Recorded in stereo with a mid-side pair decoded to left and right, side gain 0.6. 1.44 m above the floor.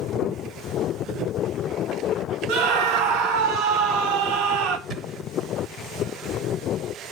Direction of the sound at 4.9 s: 45° right.